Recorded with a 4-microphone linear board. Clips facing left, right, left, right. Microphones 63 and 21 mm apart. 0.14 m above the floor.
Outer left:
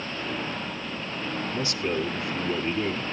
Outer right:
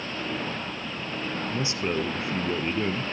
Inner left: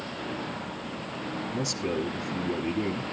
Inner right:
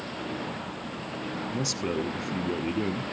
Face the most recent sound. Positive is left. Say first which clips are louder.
# even, even
turn(degrees=-20)  # may be behind; listen again after turning